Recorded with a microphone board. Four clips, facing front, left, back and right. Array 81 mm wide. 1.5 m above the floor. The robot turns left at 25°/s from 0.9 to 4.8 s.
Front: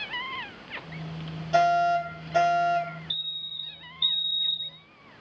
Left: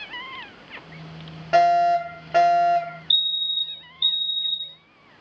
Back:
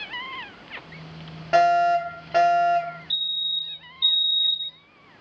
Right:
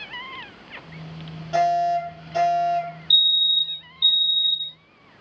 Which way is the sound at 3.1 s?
90° left.